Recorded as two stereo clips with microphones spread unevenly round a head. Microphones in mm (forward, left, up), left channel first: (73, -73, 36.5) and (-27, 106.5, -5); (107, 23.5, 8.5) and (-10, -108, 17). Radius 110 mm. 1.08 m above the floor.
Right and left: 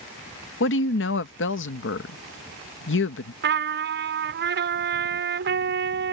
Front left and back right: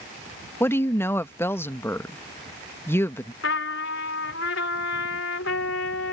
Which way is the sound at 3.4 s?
85° left.